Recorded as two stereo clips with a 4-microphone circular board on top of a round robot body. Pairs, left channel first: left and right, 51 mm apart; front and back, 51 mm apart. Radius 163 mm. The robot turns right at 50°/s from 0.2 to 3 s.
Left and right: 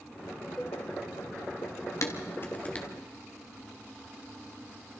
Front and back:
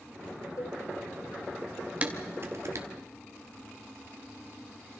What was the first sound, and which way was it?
A cowbell, 10° left.